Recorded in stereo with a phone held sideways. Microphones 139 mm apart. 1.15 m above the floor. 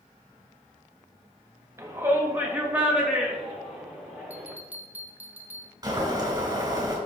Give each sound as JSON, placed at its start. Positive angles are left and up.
{"t": 1.8, "sound": "a shout", "side_deg": -20, "distance_m": 1.9}
{"t": 4.3, "sound": "a bell", "side_deg": -10, "distance_m": 1.2}
{"t": 5.8, "sound": "boiling", "side_deg": -25, "distance_m": 3.0}